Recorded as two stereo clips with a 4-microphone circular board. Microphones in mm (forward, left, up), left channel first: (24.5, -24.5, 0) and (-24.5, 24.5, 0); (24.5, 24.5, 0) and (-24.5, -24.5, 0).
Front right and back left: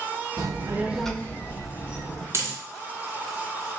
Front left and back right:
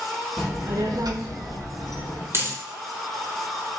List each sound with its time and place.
0.4 s a child speaking: 145° left, 0.7 m; by 2.2 s 95° right, 1.8 m
2.3 s a dropped coin: straight behind, 1.0 m